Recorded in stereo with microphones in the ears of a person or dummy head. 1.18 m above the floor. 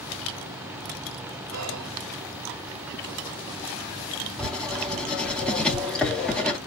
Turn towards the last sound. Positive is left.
turn(degrees=5)  # may be behind; listen again after turning